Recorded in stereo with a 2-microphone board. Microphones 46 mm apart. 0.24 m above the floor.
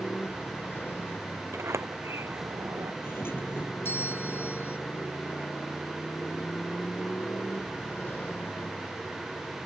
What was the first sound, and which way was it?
A motorcycle, 45° left (ahead or behind).